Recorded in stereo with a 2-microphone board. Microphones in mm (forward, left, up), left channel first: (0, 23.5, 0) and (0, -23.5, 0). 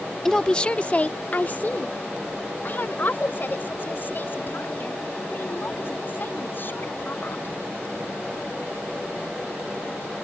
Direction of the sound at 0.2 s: 10° left (ahead or behind).